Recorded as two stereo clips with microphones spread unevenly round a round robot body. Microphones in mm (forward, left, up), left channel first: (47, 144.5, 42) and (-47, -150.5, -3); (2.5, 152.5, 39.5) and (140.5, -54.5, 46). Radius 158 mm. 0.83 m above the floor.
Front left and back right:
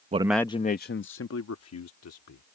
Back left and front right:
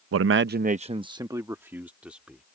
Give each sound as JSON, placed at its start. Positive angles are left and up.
{"t": 0.1, "sound": "a man speaking", "azimuth_deg": -50}